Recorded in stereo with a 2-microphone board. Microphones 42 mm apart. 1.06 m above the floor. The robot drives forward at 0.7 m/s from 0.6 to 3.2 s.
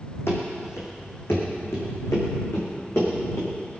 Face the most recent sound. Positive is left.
turn(degrees=75)  # may be behind; listen again after turning